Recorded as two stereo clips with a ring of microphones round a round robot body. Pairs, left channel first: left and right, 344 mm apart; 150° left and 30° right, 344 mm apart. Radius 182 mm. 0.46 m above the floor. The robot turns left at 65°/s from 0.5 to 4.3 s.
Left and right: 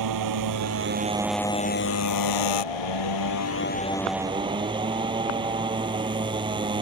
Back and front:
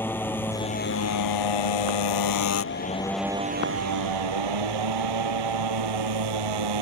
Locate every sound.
0.0 s a motorcycle: 125° right; by 6.8 s 15° right